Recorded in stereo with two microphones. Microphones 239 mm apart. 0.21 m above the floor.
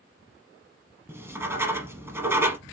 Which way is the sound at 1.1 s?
10° right (ahead or behind).